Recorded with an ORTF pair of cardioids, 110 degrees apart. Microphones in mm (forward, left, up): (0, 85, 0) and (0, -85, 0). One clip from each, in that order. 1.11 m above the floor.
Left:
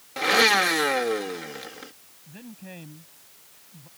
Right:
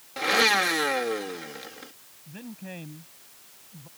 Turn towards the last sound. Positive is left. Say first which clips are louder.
# right 2 dB
turn(degrees=-10)